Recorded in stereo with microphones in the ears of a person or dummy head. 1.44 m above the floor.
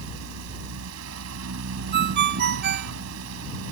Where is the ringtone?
55° right (ahead or behind).